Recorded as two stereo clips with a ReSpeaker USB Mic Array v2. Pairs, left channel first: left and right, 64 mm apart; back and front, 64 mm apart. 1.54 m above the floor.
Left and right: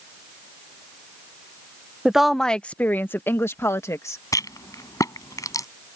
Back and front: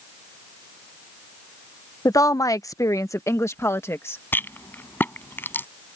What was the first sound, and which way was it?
A woman speaking, 170° right.